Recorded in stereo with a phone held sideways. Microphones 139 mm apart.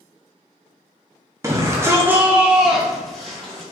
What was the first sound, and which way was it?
A shout, 20° right (ahead or behind).